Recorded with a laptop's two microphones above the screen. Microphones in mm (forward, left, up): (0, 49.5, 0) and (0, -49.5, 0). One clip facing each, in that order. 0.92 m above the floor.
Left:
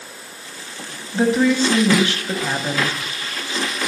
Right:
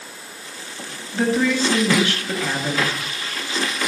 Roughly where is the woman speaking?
Left.